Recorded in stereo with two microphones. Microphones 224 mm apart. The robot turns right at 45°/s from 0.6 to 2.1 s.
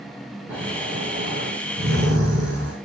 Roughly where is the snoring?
Behind.